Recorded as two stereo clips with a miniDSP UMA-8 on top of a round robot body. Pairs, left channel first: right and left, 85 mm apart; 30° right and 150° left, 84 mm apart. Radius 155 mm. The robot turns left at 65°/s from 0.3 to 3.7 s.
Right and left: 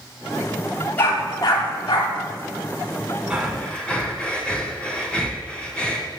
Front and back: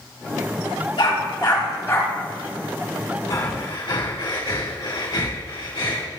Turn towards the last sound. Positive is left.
turn(degrees=-15)